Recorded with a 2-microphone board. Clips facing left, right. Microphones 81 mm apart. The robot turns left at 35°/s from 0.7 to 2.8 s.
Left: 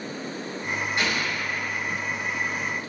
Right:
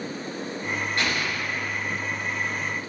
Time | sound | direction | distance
1.0 | an explosion | 20° left (ahead or behind) | 1.4 m